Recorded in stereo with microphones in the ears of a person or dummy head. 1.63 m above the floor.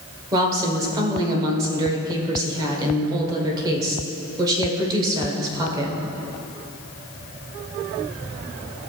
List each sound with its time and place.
0.3 s a woman speaking: 25° right (ahead or behind), 1.4 m